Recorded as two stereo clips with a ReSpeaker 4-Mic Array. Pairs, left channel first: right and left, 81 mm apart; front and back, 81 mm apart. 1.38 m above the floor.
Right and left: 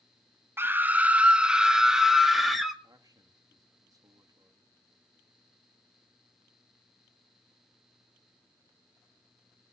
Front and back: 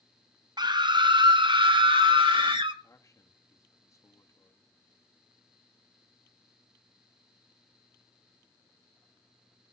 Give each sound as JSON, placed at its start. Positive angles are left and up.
{"t": 0.6, "sound": "a scream", "azimuth_deg": 150, "distance_m": 1.0}
{"t": 2.8, "sound": "a man speaking", "azimuth_deg": 50, "distance_m": 3.0}